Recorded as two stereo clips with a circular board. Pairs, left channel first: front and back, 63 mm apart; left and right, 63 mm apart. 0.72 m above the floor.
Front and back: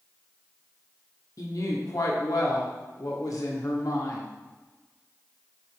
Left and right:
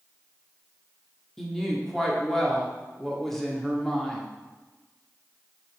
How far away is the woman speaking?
About 1.4 m.